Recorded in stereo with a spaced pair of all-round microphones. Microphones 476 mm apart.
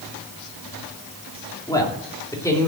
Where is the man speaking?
10° left (ahead or behind), 2.5 m; by 2.7 s 5° left (ahead or behind), 3.5 m.